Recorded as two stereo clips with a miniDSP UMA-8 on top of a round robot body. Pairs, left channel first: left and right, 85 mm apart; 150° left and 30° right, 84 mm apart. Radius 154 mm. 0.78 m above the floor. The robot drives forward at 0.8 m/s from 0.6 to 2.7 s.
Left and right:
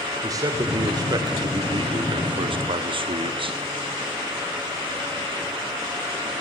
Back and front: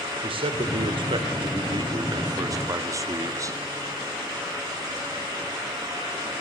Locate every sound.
0.2 s a man speaking: 40° right, 2.5 m; by 3.6 s 85° right, 1.7 m